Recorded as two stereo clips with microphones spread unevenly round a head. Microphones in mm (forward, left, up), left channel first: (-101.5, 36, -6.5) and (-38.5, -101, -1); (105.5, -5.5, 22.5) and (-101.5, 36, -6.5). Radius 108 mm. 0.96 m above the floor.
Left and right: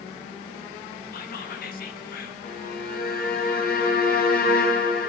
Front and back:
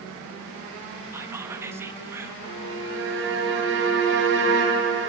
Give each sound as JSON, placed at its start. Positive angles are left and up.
{"t": 1.1, "sound": "whispering", "azimuth_deg": 95, "distance_m": 1.5}
{"t": 2.4, "sound": "a violin", "azimuth_deg": 135, "distance_m": 3.0}